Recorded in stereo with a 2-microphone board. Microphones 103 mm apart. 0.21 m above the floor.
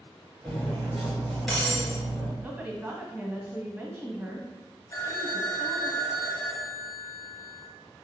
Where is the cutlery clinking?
Centre (ahead or behind), 2.0 m.